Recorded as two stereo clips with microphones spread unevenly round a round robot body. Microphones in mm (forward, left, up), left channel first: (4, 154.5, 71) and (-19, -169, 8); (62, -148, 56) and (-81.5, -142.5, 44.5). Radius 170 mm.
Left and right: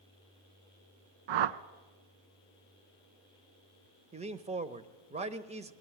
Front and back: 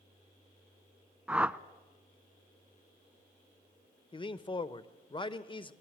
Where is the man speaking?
45° right, 1.0 m.